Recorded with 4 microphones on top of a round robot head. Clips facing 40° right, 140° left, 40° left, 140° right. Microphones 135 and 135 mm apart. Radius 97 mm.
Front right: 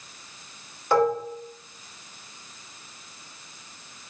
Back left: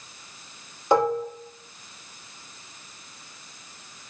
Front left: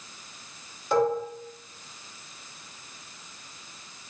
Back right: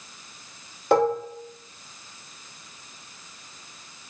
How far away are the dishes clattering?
About 0.6 m.